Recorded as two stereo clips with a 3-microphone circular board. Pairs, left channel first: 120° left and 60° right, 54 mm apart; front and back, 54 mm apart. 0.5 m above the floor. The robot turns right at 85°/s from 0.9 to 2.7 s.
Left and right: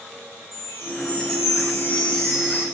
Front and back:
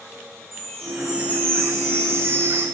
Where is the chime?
85° left, 8.5 m; by 2.6 s 125° right, 8.5 m.